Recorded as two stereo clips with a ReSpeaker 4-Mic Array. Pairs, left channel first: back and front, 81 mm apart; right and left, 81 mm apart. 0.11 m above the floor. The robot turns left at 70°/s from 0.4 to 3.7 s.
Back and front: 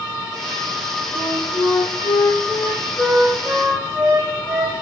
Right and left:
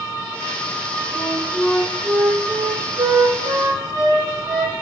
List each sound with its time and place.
1.1 s a flute: 140° right, 2.5 m; by 4.7 s 40° left, 2.5 m